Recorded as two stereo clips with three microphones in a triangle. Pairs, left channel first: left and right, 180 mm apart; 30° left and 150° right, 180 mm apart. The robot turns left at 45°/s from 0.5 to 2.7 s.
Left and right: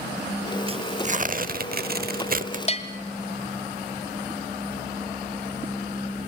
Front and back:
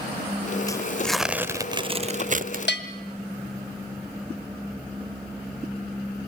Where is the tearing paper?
40° right, 0.6 m; by 2.6 s 125° right, 0.6 m.